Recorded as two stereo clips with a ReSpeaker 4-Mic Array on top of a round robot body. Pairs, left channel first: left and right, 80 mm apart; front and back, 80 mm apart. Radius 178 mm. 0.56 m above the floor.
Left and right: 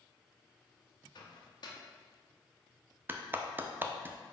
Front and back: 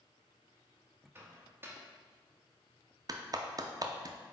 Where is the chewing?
I don't hear chewing.